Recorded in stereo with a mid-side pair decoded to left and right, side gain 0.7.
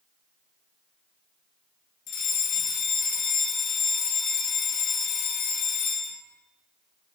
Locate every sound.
2.1 s a fire alarm: 50° left, 3.5 m